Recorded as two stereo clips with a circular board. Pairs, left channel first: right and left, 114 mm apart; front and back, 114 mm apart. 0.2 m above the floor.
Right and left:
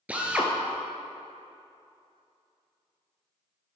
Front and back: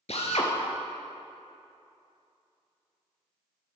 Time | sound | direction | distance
0.1 | a drill | 10° left | 1.2 m